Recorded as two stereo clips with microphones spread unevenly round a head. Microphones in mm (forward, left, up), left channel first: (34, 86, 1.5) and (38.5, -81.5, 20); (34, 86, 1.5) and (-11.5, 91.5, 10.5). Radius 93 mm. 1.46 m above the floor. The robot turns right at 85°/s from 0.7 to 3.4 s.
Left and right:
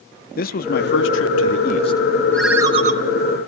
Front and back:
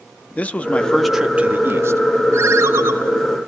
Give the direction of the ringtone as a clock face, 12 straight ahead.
6 o'clock.